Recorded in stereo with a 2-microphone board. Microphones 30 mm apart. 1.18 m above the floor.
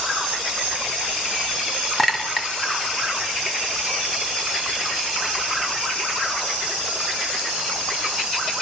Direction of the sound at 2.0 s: 5° left (ahead or behind).